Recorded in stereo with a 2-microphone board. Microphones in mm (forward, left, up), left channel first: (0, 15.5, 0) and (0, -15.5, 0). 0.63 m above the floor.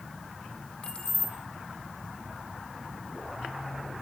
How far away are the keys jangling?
About 0.8 m.